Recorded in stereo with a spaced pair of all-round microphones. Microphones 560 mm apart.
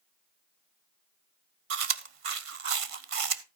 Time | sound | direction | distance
1.7 | chewing | 70° right (ahead or behind) | 0.8 m